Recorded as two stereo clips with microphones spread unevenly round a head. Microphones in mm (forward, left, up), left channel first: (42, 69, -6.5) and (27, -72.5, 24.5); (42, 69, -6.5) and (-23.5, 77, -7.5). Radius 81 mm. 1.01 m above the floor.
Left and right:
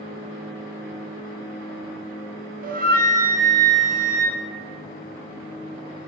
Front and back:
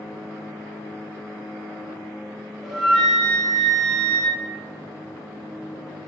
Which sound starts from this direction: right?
A flute, at 2.6 s.